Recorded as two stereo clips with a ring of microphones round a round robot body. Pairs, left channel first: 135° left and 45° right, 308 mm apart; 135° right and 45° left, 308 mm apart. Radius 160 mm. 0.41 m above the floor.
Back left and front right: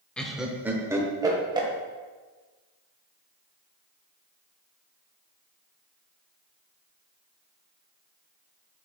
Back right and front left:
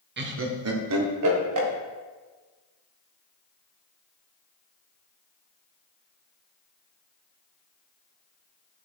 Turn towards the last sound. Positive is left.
turn(degrees=30)